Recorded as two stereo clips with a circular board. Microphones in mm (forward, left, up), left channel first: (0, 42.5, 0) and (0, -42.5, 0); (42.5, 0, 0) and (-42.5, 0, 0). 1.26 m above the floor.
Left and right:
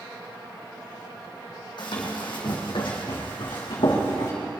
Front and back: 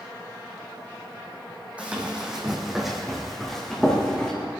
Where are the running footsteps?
105° left, 3 m; by 4.3 s 80° left, 4.5 m.